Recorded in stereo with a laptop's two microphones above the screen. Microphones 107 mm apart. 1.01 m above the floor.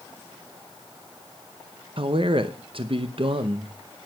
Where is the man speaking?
50° right (ahead or behind), 0.8 m.